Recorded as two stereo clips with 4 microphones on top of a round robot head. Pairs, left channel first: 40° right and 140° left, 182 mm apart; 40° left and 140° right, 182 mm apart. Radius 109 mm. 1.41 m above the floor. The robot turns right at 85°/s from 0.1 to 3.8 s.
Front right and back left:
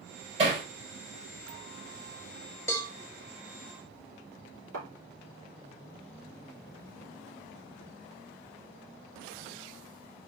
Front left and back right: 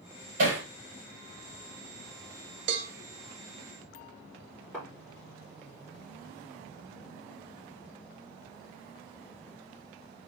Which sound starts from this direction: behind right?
A cowbell, at 2.7 s.